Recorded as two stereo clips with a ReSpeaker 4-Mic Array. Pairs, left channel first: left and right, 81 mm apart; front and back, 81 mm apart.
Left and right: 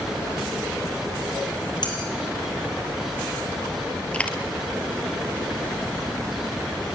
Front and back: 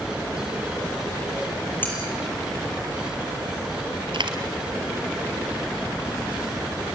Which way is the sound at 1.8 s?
65° left.